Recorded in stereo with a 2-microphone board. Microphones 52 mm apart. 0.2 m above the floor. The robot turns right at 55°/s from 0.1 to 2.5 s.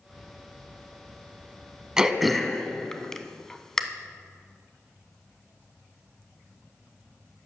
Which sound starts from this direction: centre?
Throat clearing, at 2.0 s.